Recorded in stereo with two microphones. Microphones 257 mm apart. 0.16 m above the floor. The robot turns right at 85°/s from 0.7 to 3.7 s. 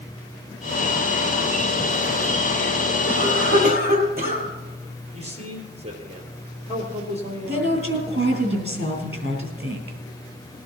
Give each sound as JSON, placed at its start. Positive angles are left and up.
{"t": 3.1, "sound": "a cough", "azimuth_deg": -95, "distance_m": 4.0}
{"t": 5.1, "sound": "a man speaking", "side_deg": -25, "distance_m": 3.5}
{"t": 7.5, "sound": "a woman speaking", "side_deg": -45, "distance_m": 3.5}